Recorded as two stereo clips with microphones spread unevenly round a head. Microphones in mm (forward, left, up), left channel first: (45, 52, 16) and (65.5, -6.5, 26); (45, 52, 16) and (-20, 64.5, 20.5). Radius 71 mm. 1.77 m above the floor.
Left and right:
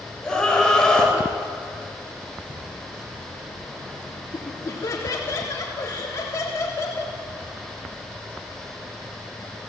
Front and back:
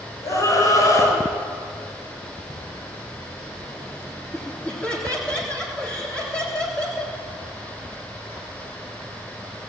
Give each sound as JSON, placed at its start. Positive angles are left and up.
{"t": 0.2, "sound": "a scream", "azimuth_deg": 30, "distance_m": 8.0}
{"t": 2.5, "sound": "a cupboard door", "azimuth_deg": -85, "distance_m": 5.5}
{"t": 4.3, "sound": "laughter", "azimuth_deg": 65, "distance_m": 3.5}